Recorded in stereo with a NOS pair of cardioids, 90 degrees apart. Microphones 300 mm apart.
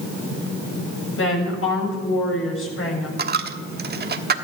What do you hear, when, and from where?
1.2 s a woman speaking: 45° left, 7 m
3.2 s a dropped coin: 35° right, 1.3 m